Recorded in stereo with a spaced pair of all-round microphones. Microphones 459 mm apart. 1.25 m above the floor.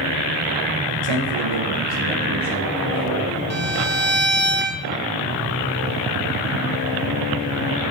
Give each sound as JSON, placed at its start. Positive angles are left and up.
{"t": 1.0, "sound": "a man speaking", "side_deg": -75, "distance_m": 1.1}
{"t": 3.5, "sound": "a violin", "side_deg": -25, "distance_m": 0.7}